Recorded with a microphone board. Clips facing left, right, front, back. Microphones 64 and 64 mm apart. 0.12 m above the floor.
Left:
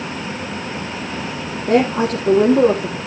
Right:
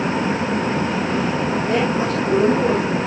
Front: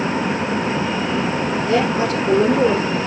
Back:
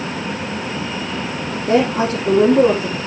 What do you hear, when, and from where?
1.7 s a woman speaking: 125° left, 5 m